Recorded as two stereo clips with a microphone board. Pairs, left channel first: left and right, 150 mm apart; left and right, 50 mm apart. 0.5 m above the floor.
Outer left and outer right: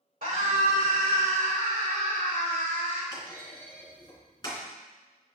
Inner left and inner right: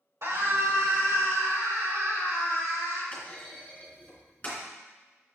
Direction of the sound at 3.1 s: 25° left (ahead or behind).